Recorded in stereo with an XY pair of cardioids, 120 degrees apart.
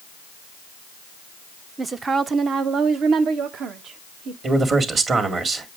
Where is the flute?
I don't hear a flute.